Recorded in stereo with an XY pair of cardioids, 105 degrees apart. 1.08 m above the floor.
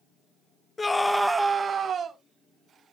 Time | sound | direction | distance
0.8 | a scream | 30° left | 0.7 m